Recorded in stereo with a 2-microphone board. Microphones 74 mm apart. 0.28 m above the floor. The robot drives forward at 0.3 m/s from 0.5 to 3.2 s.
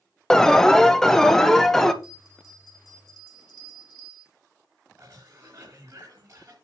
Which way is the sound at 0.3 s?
5° left (ahead or behind).